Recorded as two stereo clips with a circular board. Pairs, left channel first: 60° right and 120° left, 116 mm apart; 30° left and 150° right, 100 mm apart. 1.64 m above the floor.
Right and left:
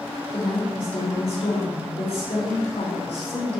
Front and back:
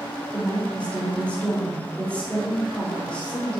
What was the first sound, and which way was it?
A woman speaking, 45° right.